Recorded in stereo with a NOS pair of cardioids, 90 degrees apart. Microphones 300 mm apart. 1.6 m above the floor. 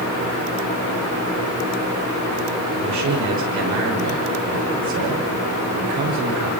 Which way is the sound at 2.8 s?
70° right.